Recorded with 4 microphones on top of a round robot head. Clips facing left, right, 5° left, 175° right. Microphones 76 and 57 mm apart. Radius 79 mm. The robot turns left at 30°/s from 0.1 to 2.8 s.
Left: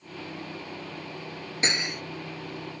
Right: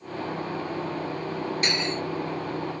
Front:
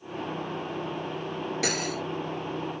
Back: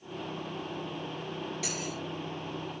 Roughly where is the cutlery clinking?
Ahead left.